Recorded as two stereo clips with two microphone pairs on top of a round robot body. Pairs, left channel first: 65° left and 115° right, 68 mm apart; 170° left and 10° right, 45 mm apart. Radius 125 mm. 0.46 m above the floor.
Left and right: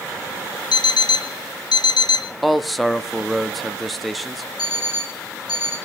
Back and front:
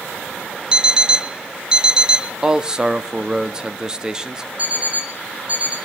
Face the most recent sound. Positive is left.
turn(degrees=45)